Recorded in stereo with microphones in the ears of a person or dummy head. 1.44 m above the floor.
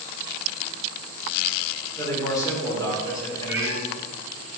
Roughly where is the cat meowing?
Right.